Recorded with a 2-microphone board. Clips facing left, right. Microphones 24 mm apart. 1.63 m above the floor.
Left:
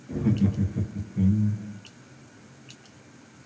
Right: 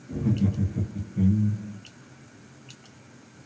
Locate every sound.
0.1 s laughter: 45° left (ahead or behind), 0.6 m; by 1.8 s 10° right (ahead or behind), 0.9 m